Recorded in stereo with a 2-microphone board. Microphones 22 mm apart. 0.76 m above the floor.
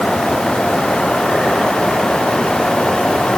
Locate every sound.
Only background noise.